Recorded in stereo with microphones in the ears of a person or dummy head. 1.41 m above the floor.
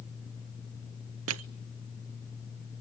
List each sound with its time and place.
1.3 s crushing: 70° right (ahead or behind), 0.6 m